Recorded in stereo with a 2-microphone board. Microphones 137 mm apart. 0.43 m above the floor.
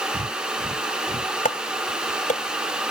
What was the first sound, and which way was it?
Breathing, 50° right (ahead or behind).